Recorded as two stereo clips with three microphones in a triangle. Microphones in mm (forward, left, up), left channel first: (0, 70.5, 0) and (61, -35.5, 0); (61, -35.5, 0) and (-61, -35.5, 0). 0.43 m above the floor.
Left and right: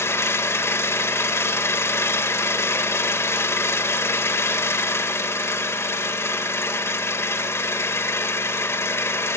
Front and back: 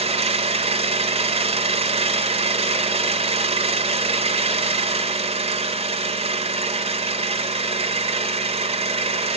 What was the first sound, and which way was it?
An engine running, 175° right.